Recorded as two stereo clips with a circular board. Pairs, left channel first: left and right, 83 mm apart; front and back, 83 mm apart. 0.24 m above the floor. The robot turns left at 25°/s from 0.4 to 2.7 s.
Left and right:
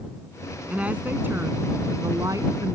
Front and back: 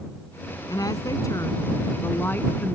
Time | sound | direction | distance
0.7 | a woman speaking | 20° right | ?